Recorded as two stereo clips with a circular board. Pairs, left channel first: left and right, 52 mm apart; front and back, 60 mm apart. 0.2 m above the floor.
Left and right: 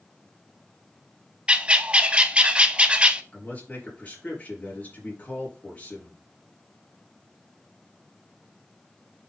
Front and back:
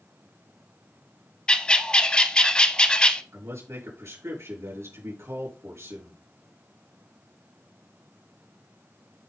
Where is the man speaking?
150° left, 4.5 m.